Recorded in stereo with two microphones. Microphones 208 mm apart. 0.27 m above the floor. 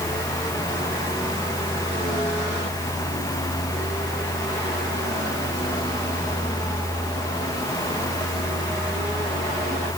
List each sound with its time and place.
Only background noise.